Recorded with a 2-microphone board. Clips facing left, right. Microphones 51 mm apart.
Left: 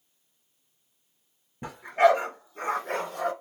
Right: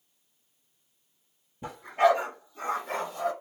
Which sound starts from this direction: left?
A dog barking, at 1.6 s.